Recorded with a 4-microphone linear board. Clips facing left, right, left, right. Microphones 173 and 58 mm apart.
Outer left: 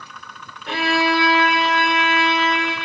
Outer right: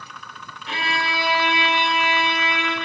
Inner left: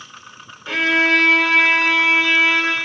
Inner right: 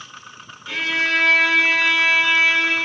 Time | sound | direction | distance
0.7 | a violin | 65° left (ahead or behind) | 1.5 m